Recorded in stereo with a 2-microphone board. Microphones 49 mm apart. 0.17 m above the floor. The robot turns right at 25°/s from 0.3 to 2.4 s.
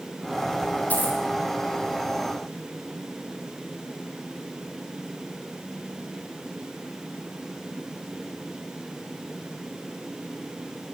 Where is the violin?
No violin in this recording.